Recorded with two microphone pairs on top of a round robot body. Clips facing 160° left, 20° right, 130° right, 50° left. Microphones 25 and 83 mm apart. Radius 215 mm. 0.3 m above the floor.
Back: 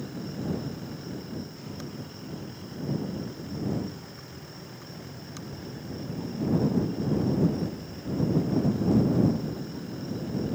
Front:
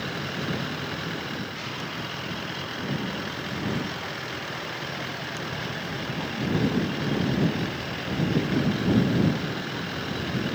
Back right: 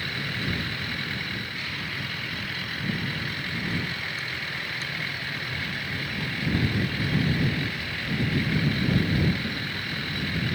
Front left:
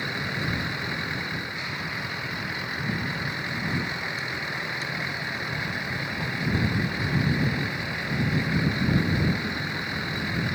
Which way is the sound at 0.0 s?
25° right.